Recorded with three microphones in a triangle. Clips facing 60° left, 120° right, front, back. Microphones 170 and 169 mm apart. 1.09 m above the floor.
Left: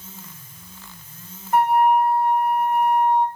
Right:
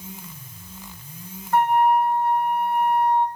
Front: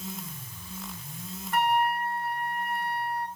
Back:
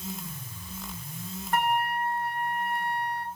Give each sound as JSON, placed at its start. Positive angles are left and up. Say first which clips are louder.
{"t": 1.5, "sound": "a flute", "louder": "left 1 dB, front 1 dB", "azimuth_deg": 135, "distance_m": 1.8}